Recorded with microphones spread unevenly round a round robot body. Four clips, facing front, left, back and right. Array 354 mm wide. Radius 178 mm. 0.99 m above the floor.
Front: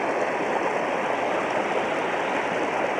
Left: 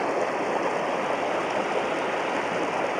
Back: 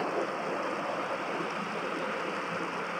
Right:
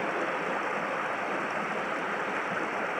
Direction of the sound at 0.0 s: 30° left.